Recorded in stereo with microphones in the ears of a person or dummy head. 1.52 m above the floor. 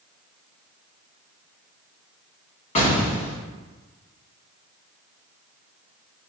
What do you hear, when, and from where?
2.8 s an explosion: 40° left (ahead or behind), 1.6 m